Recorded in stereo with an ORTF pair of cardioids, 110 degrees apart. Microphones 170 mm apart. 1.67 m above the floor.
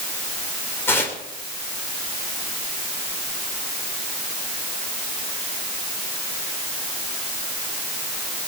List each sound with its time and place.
0.9 s tearing paper: 15° left, 3.5 m